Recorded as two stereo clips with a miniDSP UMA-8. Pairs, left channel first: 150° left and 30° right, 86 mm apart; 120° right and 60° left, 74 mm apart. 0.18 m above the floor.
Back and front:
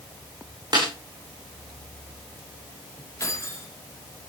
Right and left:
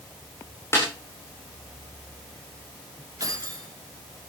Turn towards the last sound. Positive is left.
turn(degrees=95)